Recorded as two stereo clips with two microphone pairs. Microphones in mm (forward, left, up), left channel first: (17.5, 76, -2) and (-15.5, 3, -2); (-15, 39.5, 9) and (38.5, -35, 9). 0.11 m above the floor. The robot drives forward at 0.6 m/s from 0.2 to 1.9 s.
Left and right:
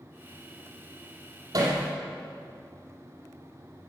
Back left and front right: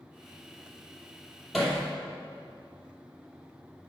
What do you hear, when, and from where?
1.5 s hammering: 145° right, 2.5 m